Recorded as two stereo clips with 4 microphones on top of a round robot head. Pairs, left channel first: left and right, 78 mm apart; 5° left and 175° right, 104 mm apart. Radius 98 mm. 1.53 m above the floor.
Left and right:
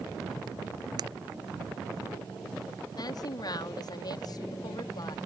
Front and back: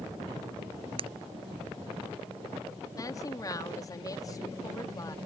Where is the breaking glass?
135° right.